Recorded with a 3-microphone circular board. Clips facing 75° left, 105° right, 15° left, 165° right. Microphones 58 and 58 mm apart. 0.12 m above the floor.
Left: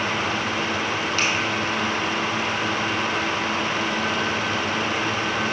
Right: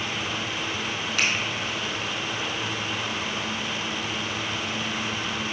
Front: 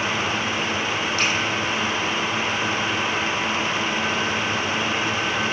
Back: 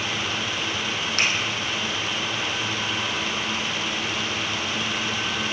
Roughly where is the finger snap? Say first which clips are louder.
Even, back 1 dB; behind.